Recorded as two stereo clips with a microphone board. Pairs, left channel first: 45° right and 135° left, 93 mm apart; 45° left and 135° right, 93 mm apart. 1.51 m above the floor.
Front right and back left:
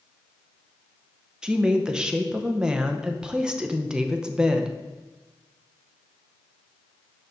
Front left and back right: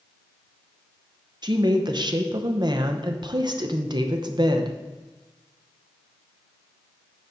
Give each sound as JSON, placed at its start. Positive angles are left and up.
{"t": 1.4, "sound": "a woman speaking", "azimuth_deg": -145, "distance_m": 0.7}